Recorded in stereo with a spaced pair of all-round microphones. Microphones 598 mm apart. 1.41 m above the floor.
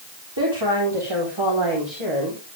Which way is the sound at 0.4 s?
40° right (ahead or behind).